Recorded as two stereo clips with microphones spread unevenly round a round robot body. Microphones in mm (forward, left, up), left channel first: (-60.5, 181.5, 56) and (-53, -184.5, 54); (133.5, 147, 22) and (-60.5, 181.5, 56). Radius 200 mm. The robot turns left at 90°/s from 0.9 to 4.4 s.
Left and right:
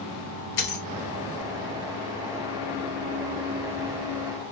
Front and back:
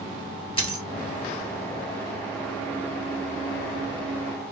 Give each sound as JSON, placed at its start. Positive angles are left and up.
{"t": 0.6, "sound": "a dropped coin", "azimuth_deg": 55, "distance_m": 1.7}